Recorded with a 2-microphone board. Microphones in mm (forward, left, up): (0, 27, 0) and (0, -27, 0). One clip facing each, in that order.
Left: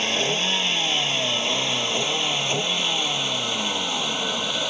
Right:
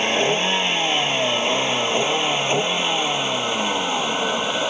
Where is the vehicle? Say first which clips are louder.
Right 5 dB; 25° right (ahead or behind).